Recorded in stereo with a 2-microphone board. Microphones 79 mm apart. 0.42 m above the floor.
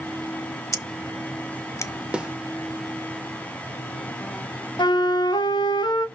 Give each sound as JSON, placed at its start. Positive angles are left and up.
{"t": 0.7, "sound": "scissors", "side_deg": 40, "distance_m": 0.5}
{"t": 2.1, "sound": "a snare drum", "side_deg": -15, "distance_m": 0.7}
{"t": 4.8, "sound": "a flute", "side_deg": 85, "distance_m": 0.7}